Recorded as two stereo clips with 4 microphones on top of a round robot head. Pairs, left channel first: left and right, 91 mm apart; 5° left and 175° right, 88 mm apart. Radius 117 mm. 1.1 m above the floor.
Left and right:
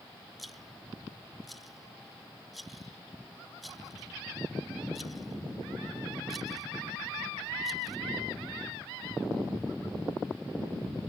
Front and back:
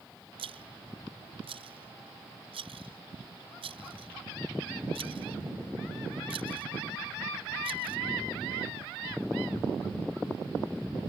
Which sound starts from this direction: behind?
A rattle, at 0.4 s.